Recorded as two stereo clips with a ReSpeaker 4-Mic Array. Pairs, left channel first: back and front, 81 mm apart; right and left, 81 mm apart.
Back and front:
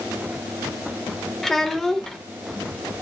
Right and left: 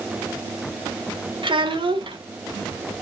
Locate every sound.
1.4 s a child speaking: 95° left, 1.6 m